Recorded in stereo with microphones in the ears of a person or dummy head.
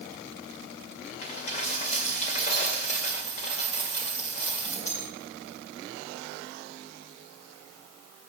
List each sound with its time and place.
1.2 s a dropped coin: 40° left (ahead or behind), 2 m